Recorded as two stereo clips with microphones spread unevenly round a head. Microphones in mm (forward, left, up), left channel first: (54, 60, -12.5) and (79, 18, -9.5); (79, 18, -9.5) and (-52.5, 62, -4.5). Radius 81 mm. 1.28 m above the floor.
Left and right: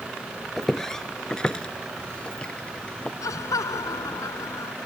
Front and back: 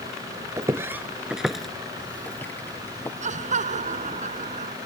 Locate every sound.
0.6 s footsteps: 155° right; by 3.1 s 55° left
3.2 s laughter: 130° left